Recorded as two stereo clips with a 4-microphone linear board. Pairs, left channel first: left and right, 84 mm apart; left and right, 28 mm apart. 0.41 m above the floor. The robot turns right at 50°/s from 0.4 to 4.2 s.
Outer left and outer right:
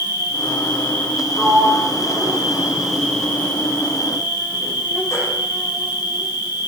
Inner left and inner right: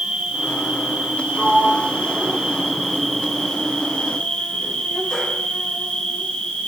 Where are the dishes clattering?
No dishes clattering in this recording.